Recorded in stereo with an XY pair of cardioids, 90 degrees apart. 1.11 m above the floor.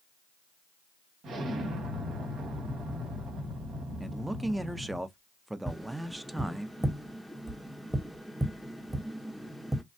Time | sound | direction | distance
1.2 | an explosion | 70° right | 1.3 m
4.0 | a man speaking | 15° right | 0.5 m
5.7 | tapping | 10° right | 0.8 m